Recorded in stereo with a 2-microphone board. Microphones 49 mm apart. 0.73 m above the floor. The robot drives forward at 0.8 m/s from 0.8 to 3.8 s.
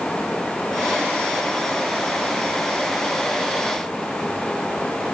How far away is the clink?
I don't hear a clink.